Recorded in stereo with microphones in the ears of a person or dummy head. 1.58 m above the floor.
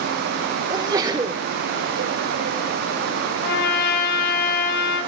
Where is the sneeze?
25° right (ahead or behind), 1.0 m.